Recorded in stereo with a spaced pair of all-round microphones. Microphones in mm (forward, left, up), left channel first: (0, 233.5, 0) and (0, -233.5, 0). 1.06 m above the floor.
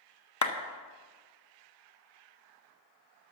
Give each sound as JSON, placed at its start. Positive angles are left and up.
{"t": 0.4, "sound": "a clap", "side_deg": 40, "distance_m": 0.9}